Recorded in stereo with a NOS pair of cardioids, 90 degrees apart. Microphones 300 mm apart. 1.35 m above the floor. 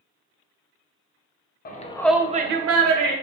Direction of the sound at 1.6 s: 30° left.